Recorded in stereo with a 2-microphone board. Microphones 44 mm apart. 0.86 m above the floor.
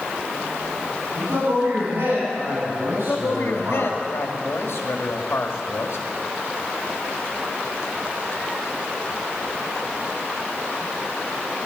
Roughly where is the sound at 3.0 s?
Left.